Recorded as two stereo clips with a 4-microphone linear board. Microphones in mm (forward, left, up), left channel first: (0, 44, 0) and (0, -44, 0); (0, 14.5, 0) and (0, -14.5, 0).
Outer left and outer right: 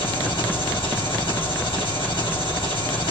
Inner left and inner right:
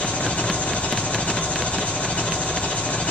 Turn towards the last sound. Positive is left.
turn(degrees=70)  # may be behind; listen again after turning